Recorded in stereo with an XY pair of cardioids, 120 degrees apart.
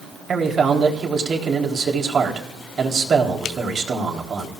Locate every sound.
0.3 s a man speaking: 40° right, 4 m